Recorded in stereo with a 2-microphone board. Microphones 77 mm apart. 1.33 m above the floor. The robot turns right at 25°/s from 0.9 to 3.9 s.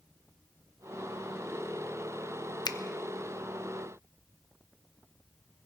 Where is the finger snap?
65° left (ahead or behind), 0.6 m; by 2.8 s 60° left (ahead or behind), 0.6 m.